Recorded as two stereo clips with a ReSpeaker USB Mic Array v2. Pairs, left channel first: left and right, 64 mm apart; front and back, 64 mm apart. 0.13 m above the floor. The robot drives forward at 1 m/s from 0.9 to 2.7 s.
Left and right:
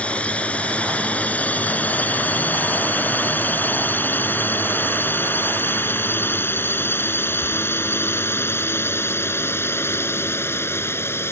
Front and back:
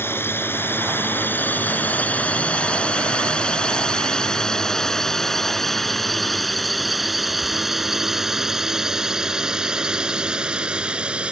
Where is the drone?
25° left; by 11.3 s 115° left.